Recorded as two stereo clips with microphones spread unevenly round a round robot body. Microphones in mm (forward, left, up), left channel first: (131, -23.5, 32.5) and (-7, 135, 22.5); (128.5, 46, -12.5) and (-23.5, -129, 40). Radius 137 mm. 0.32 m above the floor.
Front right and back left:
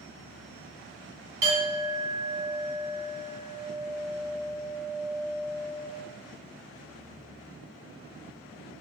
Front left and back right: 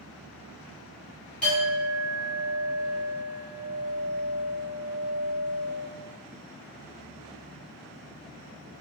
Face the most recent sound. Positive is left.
turn(degrees=105)